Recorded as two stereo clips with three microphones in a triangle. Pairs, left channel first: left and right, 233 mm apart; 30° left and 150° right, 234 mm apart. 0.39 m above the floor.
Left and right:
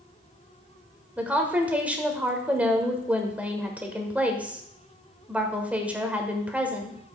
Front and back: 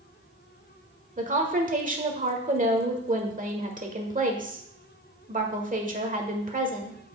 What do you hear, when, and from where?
1.2 s a woman speaking: 170° right, 1.4 m